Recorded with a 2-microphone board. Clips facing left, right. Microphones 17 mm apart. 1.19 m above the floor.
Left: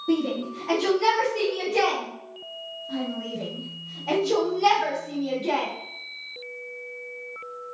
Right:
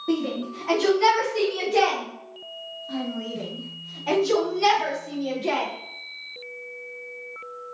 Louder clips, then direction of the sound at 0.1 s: Left 1 dB; 35° right (ahead or behind).